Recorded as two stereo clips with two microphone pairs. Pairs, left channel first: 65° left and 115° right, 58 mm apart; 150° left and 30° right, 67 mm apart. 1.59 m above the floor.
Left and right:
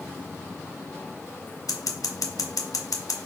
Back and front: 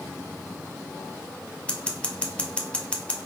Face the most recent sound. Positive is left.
turn(degrees=80)